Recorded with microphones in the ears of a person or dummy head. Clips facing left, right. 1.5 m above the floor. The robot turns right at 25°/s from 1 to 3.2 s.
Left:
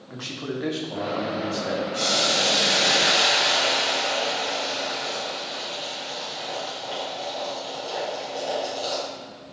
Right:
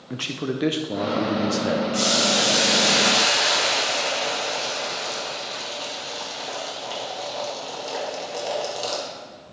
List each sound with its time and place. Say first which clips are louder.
0.1 s a man speaking: right 4 dB; 35° right (ahead or behind), 0.6 m; by 1.8 s 50° right (ahead or behind), 0.6 m
1.9 s boiling: right 3 dB; 100° right, 2.5 m; by 9.1 s 70° right, 2.5 m